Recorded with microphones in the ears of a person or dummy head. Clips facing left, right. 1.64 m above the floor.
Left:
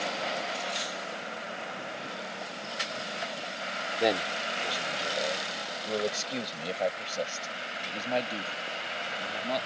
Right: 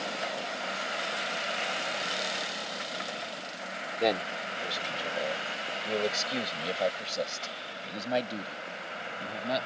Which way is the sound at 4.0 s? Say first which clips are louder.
Left 1 dB; 5° left (ahead or behind).